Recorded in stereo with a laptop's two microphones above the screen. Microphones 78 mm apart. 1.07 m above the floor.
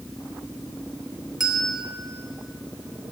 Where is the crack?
I don't hear a crack.